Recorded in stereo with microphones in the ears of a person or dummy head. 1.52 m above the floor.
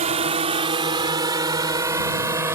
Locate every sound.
0.0 s a drone: 40° right (ahead or behind); by 2.5 s 20° right (ahead or behind)